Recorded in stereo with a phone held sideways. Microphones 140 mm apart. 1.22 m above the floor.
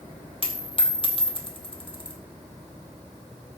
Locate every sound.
0.4 s a dropped coin: 40° left (ahead or behind), 1.7 m